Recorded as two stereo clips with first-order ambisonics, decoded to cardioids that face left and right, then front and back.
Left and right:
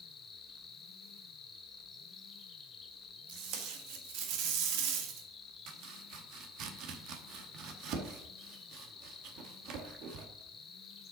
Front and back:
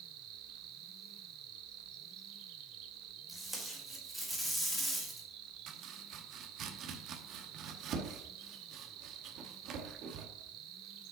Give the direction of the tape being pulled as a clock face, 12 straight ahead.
3 o'clock.